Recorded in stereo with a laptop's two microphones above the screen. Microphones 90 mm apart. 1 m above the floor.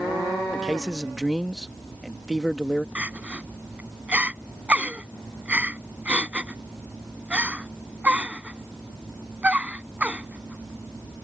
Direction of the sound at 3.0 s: 15° right (ahead or behind).